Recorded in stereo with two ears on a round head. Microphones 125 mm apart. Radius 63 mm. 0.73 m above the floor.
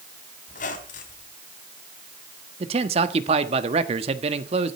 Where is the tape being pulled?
No tape being pulled in this recording.